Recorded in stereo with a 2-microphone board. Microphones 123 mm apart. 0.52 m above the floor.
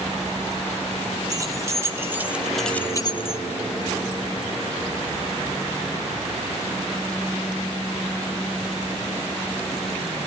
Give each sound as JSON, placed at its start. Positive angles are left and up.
{"t": 1.3, "sound": "keys jangling", "side_deg": -30, "distance_m": 2.0}